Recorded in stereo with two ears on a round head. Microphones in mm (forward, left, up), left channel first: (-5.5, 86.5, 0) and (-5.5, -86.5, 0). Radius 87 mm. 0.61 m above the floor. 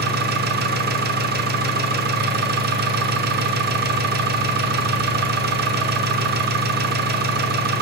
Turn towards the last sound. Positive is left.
turn(degrees=-55)  # may be behind; listen again after turning